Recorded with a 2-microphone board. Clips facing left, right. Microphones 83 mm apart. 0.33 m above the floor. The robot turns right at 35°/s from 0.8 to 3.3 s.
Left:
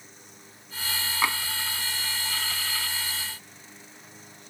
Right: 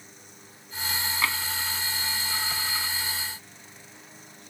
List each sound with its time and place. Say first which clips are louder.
1.2 s tapping: left 3 dB; 20° left (ahead or behind); by 1.4 s 10° left (ahead or behind)